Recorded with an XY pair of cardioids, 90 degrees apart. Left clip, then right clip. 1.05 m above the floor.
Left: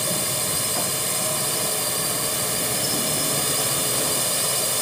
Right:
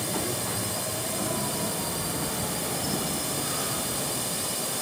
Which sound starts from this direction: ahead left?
A drone, at 0.0 s.